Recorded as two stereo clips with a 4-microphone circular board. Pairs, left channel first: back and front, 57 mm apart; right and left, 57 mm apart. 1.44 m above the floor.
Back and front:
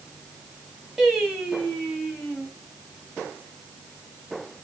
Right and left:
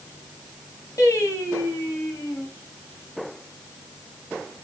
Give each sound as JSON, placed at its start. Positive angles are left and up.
{"t": 1.0, "sound": "singing", "azimuth_deg": -85, "distance_m": 3.0}